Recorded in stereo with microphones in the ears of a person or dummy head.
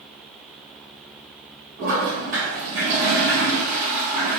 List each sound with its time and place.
1.8 s a toilet flushing: 45° right (ahead or behind), 1.2 m